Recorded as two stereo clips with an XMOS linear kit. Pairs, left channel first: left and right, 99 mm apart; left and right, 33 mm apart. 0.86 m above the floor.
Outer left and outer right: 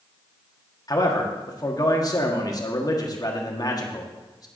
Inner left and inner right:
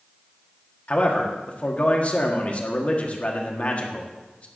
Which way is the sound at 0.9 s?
40° left (ahead or behind).